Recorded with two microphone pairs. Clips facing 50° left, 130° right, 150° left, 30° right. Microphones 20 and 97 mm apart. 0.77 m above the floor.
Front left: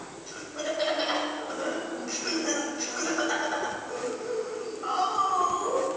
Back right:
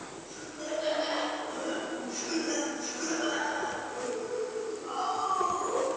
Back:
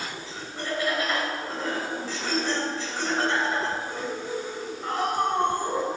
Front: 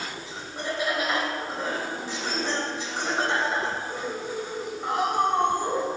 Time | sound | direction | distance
0.3 | laughter | 40° left | 3.5 m